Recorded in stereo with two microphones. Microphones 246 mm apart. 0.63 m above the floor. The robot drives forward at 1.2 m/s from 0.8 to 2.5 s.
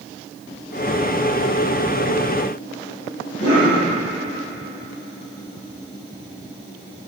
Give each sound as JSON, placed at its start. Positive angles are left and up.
{"t": 3.4, "sound": "a cough", "side_deg": 25, "distance_m": 3.5}